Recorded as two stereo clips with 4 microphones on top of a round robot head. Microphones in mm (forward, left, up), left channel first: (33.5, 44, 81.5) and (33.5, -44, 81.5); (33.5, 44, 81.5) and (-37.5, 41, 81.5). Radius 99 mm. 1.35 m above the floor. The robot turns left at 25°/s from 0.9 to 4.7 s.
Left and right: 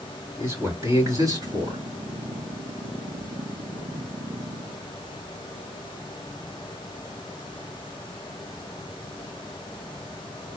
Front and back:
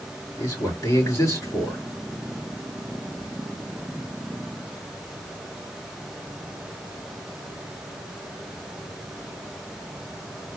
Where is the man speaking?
35° right, 3.5 m; by 1.8 s 60° right, 3.5 m.